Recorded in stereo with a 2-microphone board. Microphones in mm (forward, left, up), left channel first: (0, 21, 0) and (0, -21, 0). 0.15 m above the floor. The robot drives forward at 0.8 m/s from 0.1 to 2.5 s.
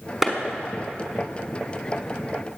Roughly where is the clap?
Centre.